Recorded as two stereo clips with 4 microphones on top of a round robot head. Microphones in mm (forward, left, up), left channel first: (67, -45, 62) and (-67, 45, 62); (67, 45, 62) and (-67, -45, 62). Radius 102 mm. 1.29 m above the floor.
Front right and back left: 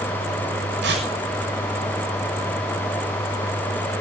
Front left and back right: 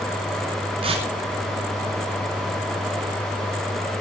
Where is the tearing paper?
155° left, 6 m.